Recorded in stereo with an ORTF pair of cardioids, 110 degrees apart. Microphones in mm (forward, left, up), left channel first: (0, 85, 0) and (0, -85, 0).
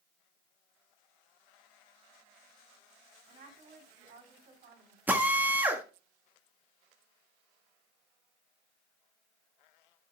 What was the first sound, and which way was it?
A woman speaking, 60° right.